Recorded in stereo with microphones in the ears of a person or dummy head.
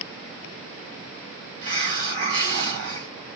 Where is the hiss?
65° right (ahead or behind), 4 m.